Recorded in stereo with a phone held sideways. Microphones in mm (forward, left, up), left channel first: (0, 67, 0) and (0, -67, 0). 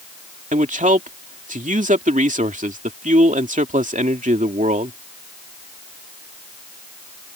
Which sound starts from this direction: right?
A man speaking, at 0.5 s.